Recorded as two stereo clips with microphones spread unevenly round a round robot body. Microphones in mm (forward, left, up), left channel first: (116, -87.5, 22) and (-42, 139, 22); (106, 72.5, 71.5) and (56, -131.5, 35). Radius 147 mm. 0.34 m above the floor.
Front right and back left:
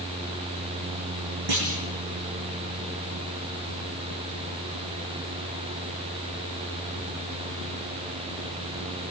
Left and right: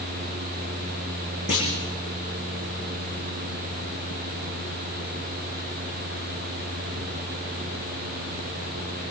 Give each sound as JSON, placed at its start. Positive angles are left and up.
{"t": 1.5, "sound": "a clunk", "azimuth_deg": 130, "distance_m": 9.5}